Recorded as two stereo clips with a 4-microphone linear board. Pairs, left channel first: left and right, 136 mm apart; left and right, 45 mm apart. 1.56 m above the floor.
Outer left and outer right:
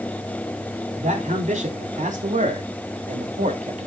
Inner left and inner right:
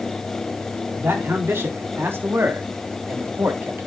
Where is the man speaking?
65° right (ahead or behind), 4 m; by 3.9 s 60° right (ahead or behind), 1.9 m.